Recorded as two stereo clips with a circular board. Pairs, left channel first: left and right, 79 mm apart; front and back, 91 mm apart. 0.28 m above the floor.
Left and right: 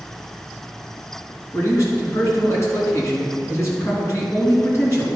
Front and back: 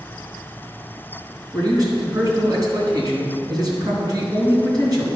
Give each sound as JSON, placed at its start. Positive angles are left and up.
{"t": 1.5, "sound": "a man speaking", "azimuth_deg": 140, "distance_m": 3.0}